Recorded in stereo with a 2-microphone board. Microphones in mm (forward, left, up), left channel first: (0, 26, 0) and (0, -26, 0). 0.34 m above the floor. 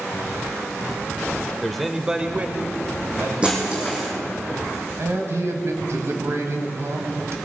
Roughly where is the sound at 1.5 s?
Centre.